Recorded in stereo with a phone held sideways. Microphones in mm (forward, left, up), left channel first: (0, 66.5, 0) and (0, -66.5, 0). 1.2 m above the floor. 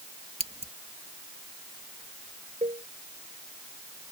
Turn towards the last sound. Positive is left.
turn(degrees=-55)  # may be behind; listen again after turning